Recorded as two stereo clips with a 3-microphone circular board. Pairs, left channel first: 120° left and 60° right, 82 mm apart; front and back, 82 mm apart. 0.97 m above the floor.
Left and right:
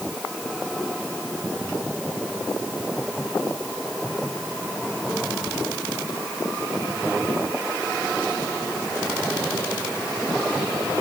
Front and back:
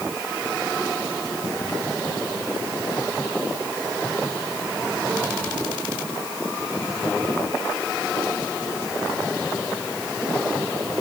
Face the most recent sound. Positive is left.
No sound to turn to.